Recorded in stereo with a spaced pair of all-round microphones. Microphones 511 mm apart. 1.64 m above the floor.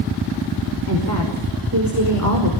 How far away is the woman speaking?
About 5 m.